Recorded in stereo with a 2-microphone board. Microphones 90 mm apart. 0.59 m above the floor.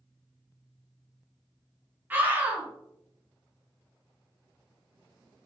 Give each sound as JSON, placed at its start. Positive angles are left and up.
{"t": 2.1, "sound": "a scream", "side_deg": -20, "distance_m": 0.7}